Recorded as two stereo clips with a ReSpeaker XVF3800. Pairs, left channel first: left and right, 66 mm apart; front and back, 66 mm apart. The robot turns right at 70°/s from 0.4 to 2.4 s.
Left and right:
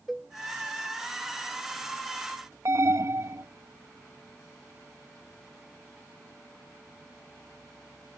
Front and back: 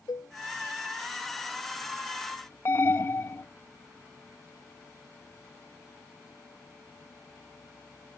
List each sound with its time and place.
0.1 s a cowbell: 5° left
2.6 s an alarm: 50° right